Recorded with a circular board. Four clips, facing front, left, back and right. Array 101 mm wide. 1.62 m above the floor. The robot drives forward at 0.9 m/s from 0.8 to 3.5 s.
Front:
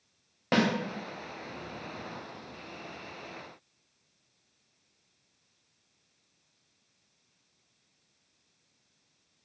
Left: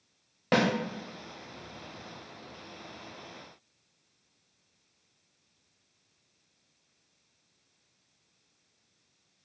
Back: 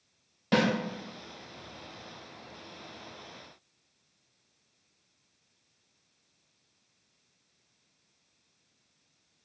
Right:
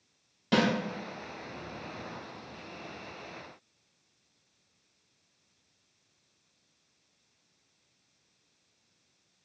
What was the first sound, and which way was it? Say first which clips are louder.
A snare drum: left 1 dB, even; 50° left.